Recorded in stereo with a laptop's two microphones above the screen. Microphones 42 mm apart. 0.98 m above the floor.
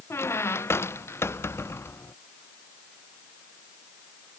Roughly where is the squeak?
Left.